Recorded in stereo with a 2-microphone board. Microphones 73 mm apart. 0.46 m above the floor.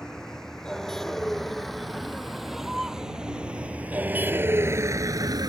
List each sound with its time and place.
0.0 s a vehicle: 10° left (ahead or behind); by 5.5 s 65° right (ahead or behind)